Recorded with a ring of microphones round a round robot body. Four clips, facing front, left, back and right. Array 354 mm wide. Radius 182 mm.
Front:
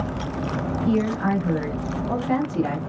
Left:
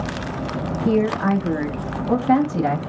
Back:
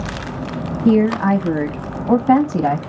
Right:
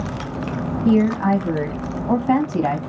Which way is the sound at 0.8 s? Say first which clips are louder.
Right 2 dB, back 9 dB; straight behind.